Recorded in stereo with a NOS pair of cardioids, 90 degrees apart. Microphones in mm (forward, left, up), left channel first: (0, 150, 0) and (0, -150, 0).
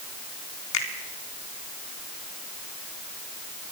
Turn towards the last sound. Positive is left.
turn(degrees=70)